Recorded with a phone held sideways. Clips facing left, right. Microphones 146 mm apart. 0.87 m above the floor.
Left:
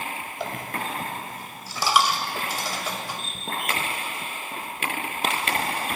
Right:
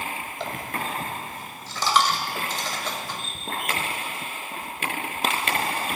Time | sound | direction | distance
0.4 | a dropped coin | 10° left (ahead or behind) | 1.8 m